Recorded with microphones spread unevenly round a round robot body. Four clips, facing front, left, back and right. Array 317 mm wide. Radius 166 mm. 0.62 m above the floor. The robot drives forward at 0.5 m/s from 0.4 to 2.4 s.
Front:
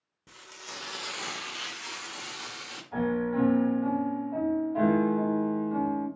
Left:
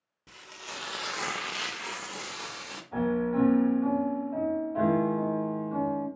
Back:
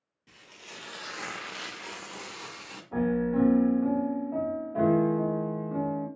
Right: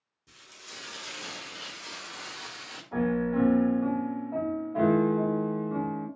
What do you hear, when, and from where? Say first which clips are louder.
0.3 s frying: left 7 dB, front 4 dB; 40° left, 0.8 m; by 2.8 s 125° left, 0.6 m
2.9 s a piano: even, back 1 dB; 155° right, 1.4 m